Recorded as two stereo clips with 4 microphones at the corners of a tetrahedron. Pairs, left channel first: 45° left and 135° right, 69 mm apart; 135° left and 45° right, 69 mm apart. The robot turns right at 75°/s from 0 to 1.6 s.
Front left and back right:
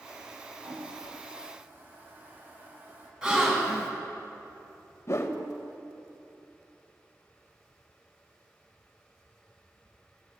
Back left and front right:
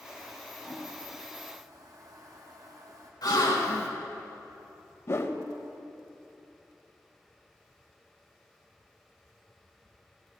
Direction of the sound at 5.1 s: 90° left.